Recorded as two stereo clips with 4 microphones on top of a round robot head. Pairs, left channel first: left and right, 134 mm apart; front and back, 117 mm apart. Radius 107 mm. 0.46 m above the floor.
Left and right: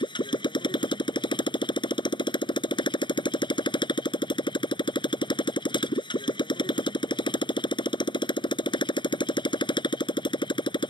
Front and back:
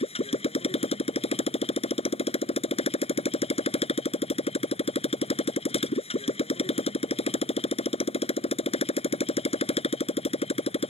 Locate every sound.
0.0 s a motorcycle: 35° left